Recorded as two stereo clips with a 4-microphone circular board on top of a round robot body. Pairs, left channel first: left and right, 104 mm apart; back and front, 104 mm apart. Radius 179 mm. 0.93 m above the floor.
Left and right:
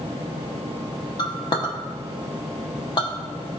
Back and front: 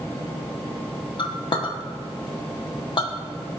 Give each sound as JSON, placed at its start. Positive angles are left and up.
{"t": 1.2, "sound": "a clink", "azimuth_deg": 135, "distance_m": 1.1}